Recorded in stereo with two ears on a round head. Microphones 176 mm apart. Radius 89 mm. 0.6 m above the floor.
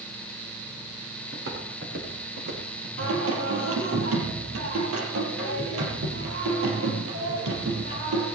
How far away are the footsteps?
About 6.5 m.